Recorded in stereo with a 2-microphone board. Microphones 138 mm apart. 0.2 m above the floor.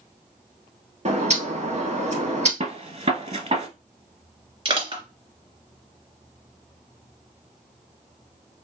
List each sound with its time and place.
1.1 s a bird: 50° right (ahead or behind), 1.4 m
2.6 s a gunshot: 50° right (ahead or behind), 0.9 m
4.7 s crushing: 40° right (ahead or behind), 2.5 m